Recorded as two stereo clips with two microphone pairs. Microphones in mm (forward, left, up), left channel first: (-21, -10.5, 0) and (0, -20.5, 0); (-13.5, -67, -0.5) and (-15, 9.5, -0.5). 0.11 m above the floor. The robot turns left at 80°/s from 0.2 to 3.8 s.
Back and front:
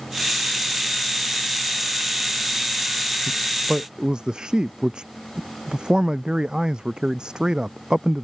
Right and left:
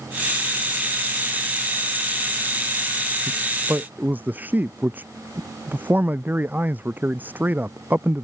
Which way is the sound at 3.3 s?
65° left.